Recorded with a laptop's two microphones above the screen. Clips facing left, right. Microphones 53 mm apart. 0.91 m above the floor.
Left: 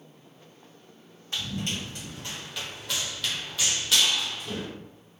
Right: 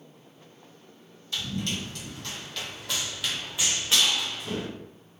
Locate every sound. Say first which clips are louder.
1.3 s running footsteps: right 1 dB; 35° left (ahead or behind), 1.6 m; by 4.7 s 45° right (ahead or behind), 1.4 m